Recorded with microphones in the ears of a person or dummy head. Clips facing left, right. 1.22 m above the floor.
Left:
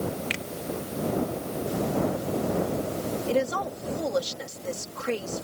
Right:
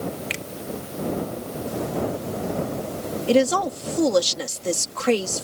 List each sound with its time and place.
0.3 s a finger snap: centre (ahead or behind)
3.3 s a woman speaking: 75° right (ahead or behind)